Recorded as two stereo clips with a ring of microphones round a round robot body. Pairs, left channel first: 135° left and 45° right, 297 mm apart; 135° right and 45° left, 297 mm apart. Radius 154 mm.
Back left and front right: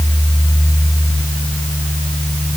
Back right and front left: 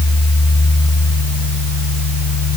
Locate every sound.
Only background noise.